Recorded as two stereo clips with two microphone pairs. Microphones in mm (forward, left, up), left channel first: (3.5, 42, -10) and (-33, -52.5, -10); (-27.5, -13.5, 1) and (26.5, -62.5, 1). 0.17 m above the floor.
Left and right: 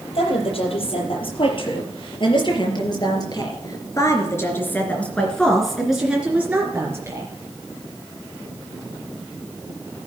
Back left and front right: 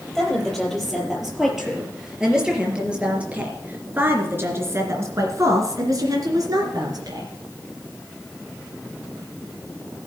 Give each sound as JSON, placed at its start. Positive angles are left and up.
{"t": 0.1, "sound": "a woman speaking", "azimuth_deg": 50, "distance_m": 5.5}